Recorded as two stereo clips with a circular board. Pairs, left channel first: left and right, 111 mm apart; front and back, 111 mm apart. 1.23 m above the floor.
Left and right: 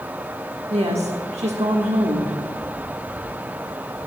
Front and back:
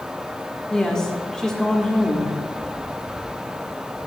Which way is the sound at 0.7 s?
85° right.